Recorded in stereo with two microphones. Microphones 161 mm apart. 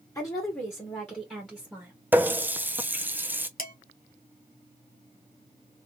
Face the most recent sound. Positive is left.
turn(degrees=60)  # may be behind; listen again after turning